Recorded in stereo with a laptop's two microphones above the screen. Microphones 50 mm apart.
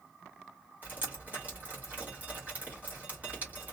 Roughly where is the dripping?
Right.